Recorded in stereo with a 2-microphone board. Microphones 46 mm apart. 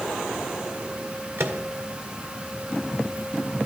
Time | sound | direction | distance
1.4 | a microwave | 60° right (ahead or behind) | 1.9 m